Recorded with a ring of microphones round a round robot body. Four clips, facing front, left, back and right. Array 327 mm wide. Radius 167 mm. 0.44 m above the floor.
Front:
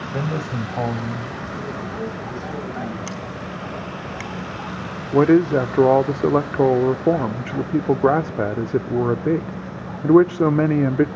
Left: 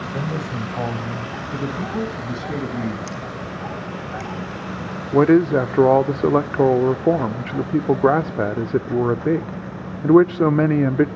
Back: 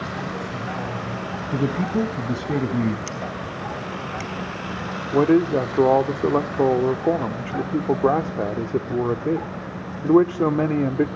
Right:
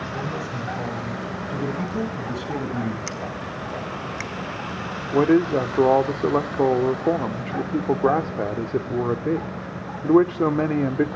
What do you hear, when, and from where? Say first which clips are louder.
0.1 s a man speaking: left 4 dB, front 4 dB; 30° left, 2.5 m
1.5 s a man speaking: left 2 dB, back 11 dB; 170° left, 3.5 m
3.1 s scissors: left 1 dB, back 1 dB; 55° right, 2.0 m
5.1 s a man speaking: left 4 dB, front 3 dB; 55° left, 0.8 m